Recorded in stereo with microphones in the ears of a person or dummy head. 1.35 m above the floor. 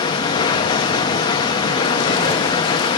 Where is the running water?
30° left (ahead or behind), 0.9 m.